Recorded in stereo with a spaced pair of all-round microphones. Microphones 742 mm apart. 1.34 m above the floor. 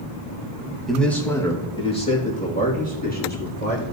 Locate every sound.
0.9 s a man speaking: centre (ahead or behind), 1.5 m; by 3.8 s 15° left (ahead or behind), 3.5 m